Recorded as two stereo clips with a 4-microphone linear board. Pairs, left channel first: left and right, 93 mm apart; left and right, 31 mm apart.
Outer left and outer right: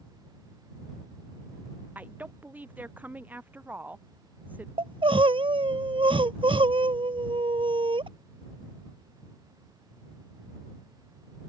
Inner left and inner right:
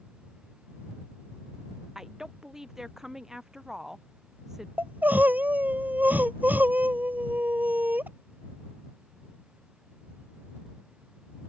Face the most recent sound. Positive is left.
turn(degrees=-75)  # may be behind; listen again after turning